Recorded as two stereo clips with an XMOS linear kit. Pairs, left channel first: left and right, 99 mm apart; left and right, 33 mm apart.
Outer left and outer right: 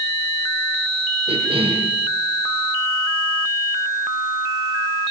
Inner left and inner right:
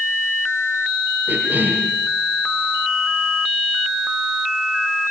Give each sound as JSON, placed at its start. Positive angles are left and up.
{"t": 1.3, "sound": "a cough", "side_deg": -75, "distance_m": 7.0}